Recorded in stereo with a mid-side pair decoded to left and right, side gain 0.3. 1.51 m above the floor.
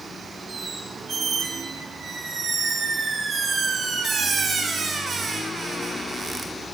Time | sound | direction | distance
0.5 | a squeak | 60° right | 1.2 m